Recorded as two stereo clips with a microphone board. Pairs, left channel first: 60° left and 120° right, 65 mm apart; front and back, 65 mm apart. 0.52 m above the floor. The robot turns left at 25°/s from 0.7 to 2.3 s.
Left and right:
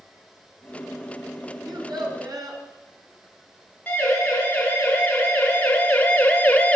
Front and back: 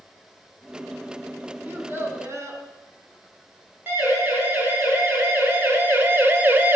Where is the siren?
125° left, 5.5 m.